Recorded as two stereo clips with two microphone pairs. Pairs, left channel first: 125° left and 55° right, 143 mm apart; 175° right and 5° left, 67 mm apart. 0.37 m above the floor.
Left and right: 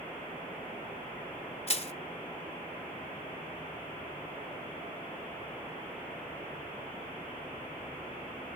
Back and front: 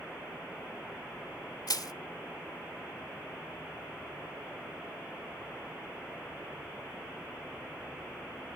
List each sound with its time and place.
1.7 s crushing: 165° left, 0.7 m